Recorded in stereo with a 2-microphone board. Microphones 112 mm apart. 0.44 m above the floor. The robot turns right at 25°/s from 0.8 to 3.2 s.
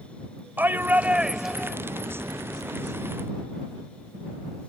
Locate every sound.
0.6 s a shout: 15° right (ahead or behind); by 1.8 s 5° left (ahead or behind)